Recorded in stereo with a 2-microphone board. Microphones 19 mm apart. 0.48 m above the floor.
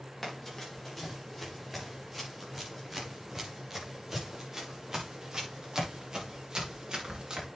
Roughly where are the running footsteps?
Centre.